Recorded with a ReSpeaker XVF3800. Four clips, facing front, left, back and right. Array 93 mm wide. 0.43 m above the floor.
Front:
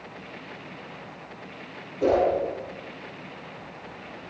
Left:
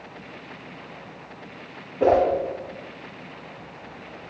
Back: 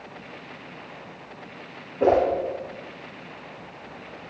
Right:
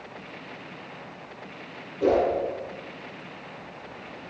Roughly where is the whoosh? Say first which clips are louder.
Left 4 dB, back 2 dB; behind left.